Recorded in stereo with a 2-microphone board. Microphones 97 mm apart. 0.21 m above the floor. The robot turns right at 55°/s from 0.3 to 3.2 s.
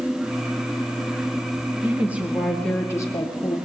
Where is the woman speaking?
30° right, 5 m; by 3.6 s 45° left, 5 m.